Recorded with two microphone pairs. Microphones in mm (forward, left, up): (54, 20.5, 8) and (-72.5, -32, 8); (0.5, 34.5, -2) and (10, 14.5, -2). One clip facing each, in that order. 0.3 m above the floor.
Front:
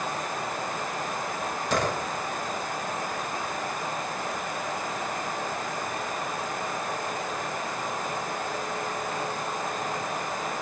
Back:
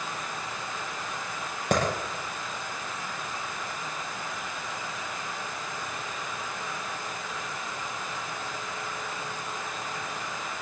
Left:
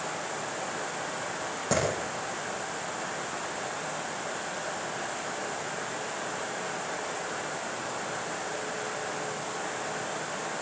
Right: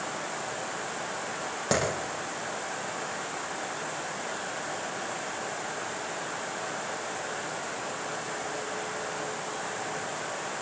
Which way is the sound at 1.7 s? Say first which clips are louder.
Back 2 dB, right 1 dB; 130° right.